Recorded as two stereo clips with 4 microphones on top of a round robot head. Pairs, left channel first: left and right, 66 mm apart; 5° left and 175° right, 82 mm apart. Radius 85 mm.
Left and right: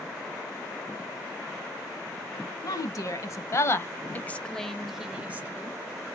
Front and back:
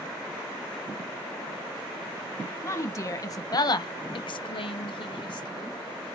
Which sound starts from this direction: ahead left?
A woman speaking, at 2.6 s.